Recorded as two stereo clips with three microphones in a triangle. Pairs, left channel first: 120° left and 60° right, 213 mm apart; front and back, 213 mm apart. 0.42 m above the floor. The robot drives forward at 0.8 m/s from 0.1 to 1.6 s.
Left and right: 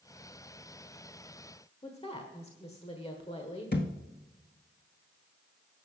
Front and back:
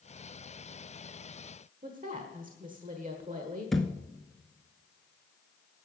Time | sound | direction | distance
1.8 | a woman speaking | 165° left | 1.2 m
3.7 | a thud | 90° left | 1.1 m